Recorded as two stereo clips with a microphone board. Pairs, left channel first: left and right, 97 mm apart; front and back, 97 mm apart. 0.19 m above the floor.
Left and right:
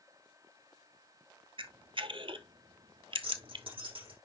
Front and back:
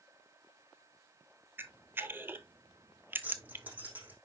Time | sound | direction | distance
1.6 | a camera shutter | 115° right | 0.6 m
3.2 | keys jangling | 110° right | 5.5 m